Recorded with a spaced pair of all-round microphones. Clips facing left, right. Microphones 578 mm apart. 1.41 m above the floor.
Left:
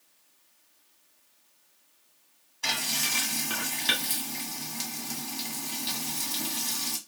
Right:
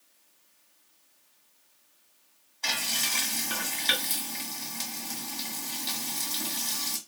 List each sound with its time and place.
2.6 s frying: 35° left (ahead or behind), 1.0 m